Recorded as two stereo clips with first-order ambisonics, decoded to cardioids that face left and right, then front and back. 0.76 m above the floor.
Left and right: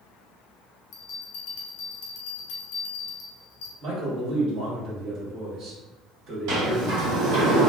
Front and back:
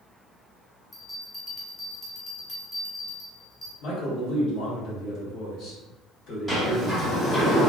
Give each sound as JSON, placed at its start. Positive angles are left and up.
{"t": 0.9, "sound": "a bell", "azimuth_deg": 85, "distance_m": 0.9}
{"t": 3.8, "sound": "a man speaking", "azimuth_deg": -45, "distance_m": 1.1}
{"t": 6.5, "sound": "a sliding door", "azimuth_deg": -90, "distance_m": 1.4}